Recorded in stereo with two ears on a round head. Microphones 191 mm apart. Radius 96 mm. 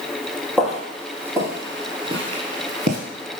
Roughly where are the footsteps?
Centre.